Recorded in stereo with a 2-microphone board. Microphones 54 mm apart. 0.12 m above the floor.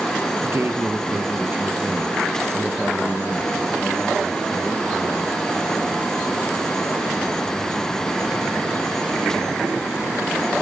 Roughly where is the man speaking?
Right.